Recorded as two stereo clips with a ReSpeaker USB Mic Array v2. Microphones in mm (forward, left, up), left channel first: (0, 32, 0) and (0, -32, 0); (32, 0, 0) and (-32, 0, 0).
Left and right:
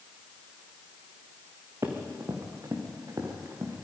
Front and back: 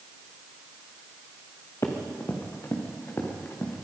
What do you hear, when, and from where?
1.8 s running footsteps: 50° right, 3.5 m; by 3.8 s 60° right, 4.5 m